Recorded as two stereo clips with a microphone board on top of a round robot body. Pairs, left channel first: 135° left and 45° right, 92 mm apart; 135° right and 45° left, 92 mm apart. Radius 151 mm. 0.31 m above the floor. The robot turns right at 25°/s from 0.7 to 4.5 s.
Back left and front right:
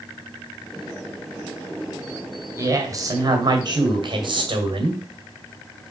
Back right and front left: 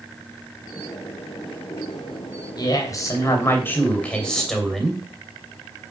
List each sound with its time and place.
2.6 s a woman speaking: 100° right, 3 m; by 5.0 s 50° right, 3 m